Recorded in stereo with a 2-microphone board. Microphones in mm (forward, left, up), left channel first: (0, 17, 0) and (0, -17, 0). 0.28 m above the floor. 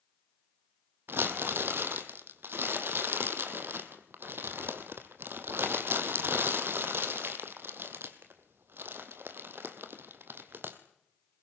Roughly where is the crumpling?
Right.